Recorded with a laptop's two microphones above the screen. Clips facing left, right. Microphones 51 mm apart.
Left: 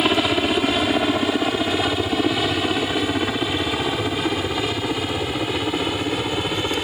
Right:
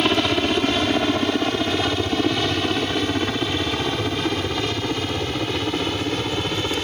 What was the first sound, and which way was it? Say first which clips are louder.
A helicopter: left 1 dB; 5° left (ahead or behind).